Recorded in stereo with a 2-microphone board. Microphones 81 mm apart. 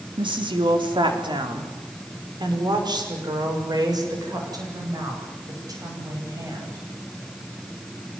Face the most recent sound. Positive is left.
turn(degrees=-45)  # may be behind; listen again after turning